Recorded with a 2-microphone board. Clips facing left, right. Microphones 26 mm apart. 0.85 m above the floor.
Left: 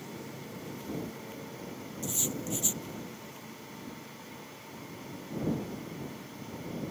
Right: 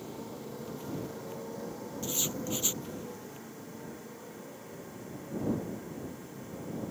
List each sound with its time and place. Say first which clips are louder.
0.0 s a motorcycle: right 1 dB; 35° right (ahead or behind); by 6.9 s 50° right (ahead or behind)
2.0 s writing: even; 20° right (ahead or behind)